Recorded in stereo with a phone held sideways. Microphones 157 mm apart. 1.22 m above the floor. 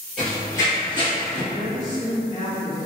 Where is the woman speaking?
55° left (ahead or behind), 1.3 m.